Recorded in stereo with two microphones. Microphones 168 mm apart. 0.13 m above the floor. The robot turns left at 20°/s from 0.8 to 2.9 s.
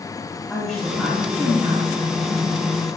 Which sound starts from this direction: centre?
A woman speaking, at 0.5 s.